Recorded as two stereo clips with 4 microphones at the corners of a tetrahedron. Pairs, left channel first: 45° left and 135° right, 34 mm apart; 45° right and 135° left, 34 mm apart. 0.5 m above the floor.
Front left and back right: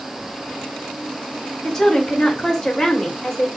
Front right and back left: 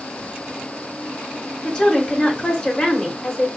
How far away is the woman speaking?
About 1.5 m.